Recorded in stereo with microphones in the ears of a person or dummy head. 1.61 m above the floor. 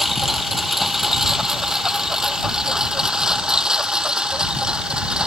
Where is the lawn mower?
Centre (ahead or behind); by 5.3 s 5° right (ahead or behind).